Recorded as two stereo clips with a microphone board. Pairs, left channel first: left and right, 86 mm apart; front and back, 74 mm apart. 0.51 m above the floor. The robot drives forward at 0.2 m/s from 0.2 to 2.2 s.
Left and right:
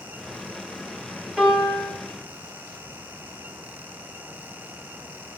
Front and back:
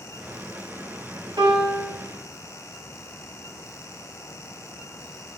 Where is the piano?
Straight behind, 3.5 m.